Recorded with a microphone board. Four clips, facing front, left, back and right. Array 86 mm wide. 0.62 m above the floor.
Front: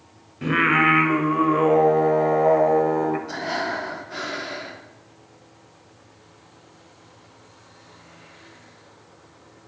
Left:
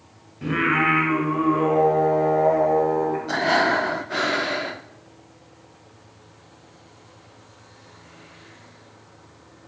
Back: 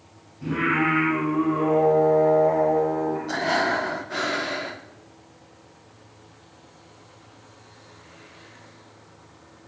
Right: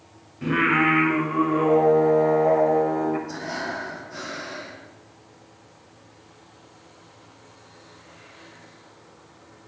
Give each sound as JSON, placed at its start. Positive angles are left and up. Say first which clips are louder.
{"t": 0.4, "sound": "singing", "louder": "right 1 dB, front 4 dB", "azimuth_deg": 0, "distance_m": 2.0}
{"t": 3.3, "sound": "breathing", "louder": "left 10 dB, back 4 dB", "azimuth_deg": 110, "distance_m": 0.7}